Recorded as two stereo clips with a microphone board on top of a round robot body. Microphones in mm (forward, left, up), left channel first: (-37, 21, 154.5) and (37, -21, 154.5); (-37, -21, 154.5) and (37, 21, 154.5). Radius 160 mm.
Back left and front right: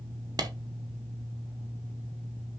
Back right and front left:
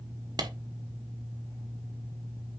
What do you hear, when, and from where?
0.4 s a clap: straight ahead, 1.8 m